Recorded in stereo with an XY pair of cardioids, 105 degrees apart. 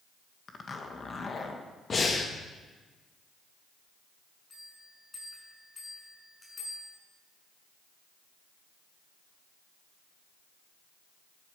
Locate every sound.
0.5 s a zipper: 35° left, 1.6 m
1.9 s breathing: 35° left, 1.6 m
4.5 s a bell: 30° left, 6 m